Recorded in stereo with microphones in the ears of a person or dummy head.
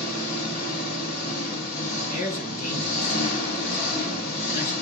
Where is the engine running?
55° left (ahead or behind), 2.5 m.